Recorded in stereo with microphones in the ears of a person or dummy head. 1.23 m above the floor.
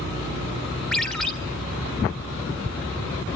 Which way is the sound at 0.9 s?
5° left (ahead or behind).